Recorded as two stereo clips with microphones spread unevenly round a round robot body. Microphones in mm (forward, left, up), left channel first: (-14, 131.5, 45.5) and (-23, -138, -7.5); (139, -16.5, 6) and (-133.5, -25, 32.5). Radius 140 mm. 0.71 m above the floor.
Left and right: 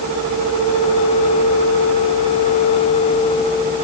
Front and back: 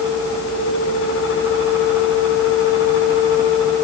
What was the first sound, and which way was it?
Only background noise.